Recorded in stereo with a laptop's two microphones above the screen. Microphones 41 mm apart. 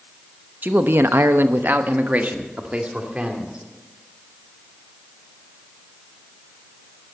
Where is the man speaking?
45° right (ahead or behind), 0.9 m; by 3.6 s 25° right (ahead or behind), 2.5 m.